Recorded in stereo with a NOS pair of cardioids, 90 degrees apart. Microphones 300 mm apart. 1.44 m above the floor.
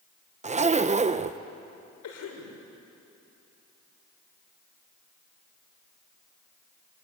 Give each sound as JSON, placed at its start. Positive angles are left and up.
{"t": 0.4, "sound": "a zipper", "azimuth_deg": -25, "distance_m": 0.9}
{"t": 2.0, "sound": "a cough", "azimuth_deg": 70, "distance_m": 6.5}